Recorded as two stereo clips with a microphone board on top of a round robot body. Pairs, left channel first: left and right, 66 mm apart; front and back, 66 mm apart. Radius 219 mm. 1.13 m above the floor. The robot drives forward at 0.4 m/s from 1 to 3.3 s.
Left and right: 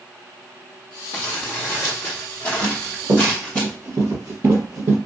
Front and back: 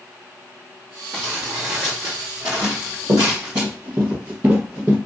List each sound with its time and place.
1.1 s crumpling: 125° left, 0.7 m; by 3.6 s 160° left, 1.3 m
2.6 s running footsteps: 145° right, 2 m; by 5.0 s 115° right, 2.5 m